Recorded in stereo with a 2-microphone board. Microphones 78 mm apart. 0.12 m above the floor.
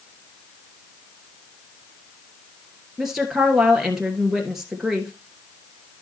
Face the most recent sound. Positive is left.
turn(degrees=-5)  # may be behind; listen again after turning